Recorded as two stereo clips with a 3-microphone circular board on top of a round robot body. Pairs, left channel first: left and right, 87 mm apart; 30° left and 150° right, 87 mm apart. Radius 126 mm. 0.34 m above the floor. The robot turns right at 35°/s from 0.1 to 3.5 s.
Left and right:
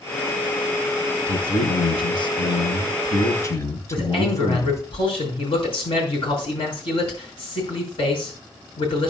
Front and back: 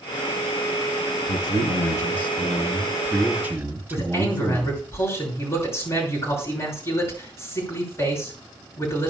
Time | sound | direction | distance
1.3 | a man speaking | 65° left | 3.5 m
3.9 | a man speaking | 85° left | 5 m